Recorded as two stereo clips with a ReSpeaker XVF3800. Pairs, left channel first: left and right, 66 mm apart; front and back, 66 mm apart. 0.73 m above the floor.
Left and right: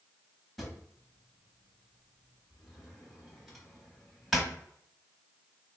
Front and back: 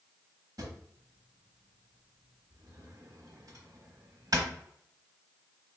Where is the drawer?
Straight behind, 0.9 m.